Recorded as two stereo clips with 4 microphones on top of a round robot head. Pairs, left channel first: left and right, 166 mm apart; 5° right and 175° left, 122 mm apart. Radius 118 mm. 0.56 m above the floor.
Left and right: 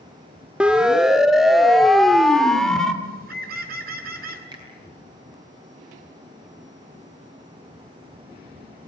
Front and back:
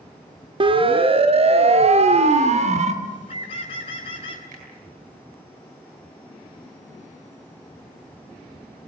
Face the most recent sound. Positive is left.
turn(degrees=-155)